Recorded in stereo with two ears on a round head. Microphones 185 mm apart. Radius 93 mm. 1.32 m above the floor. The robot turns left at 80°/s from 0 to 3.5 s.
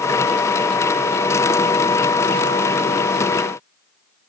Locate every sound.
Only background noise.